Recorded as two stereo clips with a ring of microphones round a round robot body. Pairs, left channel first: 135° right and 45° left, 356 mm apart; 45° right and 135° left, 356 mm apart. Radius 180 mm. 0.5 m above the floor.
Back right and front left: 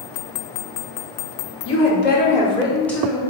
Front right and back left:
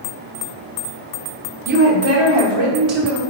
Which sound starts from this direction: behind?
A woman speaking, at 1.6 s.